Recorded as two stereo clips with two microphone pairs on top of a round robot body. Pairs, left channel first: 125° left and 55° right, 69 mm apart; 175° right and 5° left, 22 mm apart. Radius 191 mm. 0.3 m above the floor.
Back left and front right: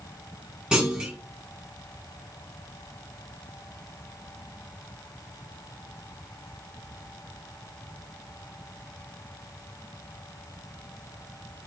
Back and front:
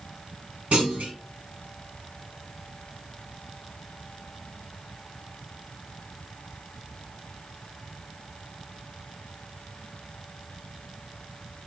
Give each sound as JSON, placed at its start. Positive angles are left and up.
{"t": 0.7, "sound": "a clunk", "azimuth_deg": 20, "distance_m": 1.2}